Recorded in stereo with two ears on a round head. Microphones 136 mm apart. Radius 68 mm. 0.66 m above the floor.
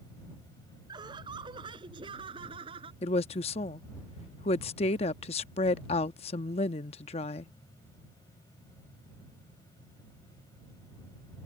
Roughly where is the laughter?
Right.